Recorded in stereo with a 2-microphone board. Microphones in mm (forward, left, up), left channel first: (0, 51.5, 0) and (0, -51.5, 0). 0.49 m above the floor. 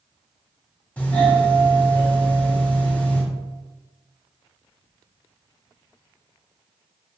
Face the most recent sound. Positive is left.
turn(degrees=15)  # may be behind; listen again after turning